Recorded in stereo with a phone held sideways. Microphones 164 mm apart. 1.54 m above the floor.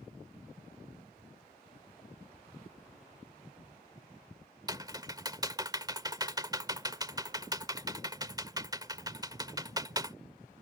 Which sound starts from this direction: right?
Typing on a keyboard, at 4.7 s.